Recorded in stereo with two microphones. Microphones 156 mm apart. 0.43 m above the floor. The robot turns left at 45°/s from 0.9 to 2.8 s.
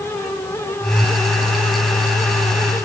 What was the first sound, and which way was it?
Only background noise.